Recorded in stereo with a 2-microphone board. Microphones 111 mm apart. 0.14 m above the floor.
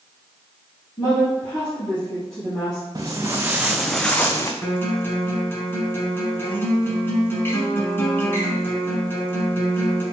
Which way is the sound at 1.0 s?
40° left (ahead or behind).